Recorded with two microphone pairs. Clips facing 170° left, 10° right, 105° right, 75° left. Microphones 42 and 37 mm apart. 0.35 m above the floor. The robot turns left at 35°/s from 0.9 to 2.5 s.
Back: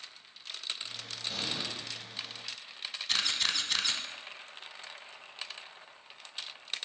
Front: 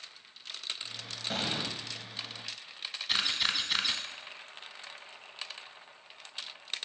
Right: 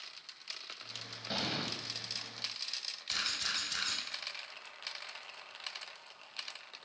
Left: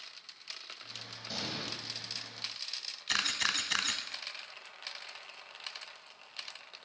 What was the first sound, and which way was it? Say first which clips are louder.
An explosion: front 4 dB, right 3 dB; 40° right.